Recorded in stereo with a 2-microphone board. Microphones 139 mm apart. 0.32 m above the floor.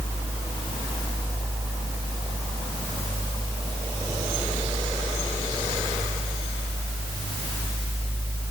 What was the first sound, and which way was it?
Only background noise.